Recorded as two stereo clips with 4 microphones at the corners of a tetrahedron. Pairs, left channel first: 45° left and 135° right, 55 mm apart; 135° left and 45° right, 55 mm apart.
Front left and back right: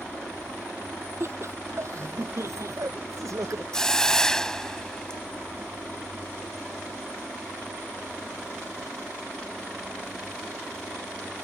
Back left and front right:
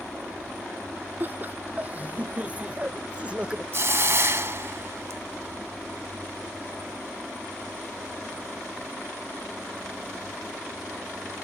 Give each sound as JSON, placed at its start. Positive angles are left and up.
{"t": 1.2, "sound": "laughter", "azimuth_deg": -100}
{"t": 3.7, "sound": "a hiss", "azimuth_deg": -30}